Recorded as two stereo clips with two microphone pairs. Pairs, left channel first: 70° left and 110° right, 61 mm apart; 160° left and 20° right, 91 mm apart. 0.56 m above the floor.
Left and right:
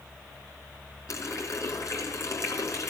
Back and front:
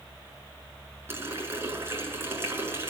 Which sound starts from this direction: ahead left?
A running tap, at 1.1 s.